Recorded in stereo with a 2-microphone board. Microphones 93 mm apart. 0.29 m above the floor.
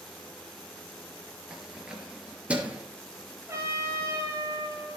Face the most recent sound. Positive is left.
turn(degrees=-30)  # may be behind; listen again after turning